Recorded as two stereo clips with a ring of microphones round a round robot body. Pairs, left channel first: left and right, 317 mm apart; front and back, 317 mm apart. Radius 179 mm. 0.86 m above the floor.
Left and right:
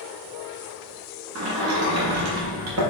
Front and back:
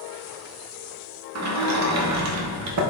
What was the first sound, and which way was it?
A sliding door, 140° right.